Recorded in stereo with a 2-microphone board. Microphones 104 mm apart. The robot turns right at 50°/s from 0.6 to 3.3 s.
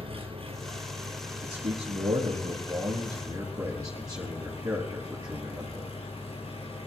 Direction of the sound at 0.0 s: 65° right.